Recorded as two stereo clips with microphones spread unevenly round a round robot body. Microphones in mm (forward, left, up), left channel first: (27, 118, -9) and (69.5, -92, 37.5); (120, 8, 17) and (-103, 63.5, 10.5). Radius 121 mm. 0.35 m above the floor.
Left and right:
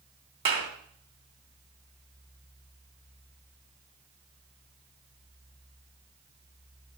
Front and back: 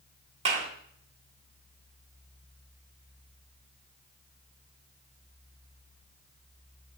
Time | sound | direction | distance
0.5 | a clap | 130° right | 3 m